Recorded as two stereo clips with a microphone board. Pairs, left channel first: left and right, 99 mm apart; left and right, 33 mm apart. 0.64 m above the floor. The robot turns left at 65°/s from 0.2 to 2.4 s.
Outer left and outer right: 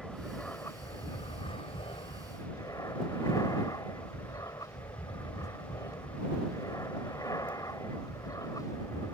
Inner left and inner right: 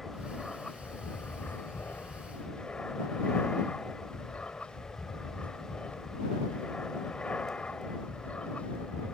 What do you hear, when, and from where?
0.0 s an aircraft: 175° right; by 9.2 s 40° left